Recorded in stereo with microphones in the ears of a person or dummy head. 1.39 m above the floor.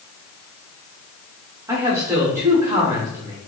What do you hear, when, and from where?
1.7 s a man speaking: 15° right (ahead or behind), 1.1 m